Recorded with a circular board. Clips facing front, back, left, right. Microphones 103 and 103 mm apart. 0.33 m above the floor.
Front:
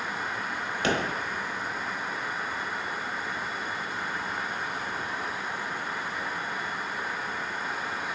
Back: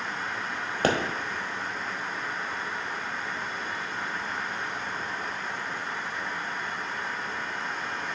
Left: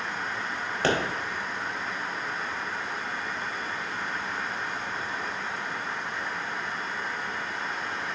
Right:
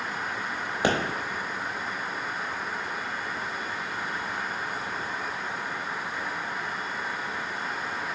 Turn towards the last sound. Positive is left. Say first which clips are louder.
# back 3 dB, even
turn(degrees=-160)